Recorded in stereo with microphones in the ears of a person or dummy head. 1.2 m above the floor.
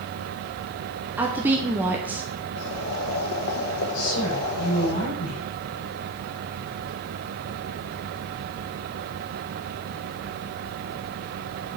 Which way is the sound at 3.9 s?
80° left.